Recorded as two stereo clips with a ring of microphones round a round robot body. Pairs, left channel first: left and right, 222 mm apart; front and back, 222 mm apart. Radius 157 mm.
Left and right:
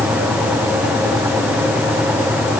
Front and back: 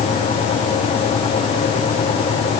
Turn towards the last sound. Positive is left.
No sound to turn to.